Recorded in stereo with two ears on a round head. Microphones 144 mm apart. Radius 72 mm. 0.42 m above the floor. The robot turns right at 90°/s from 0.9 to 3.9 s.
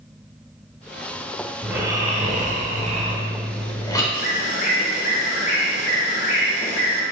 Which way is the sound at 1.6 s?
175° right.